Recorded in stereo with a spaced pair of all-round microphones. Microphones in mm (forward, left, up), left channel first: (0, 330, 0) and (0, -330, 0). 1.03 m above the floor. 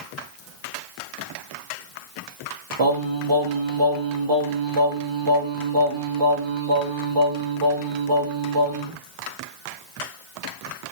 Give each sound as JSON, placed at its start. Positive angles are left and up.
{"t": 2.8, "sound": "singing", "side_deg": -45, "distance_m": 0.6}